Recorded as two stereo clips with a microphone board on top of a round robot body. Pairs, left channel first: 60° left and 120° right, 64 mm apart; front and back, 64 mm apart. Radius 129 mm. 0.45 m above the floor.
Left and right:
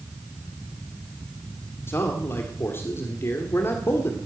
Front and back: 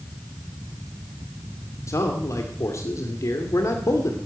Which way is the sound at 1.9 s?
20° left.